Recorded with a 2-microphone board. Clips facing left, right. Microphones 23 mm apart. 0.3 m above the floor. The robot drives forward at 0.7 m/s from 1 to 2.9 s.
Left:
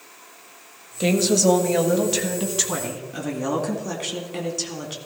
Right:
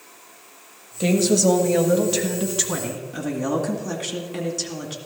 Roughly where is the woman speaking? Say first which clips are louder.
Even; centre.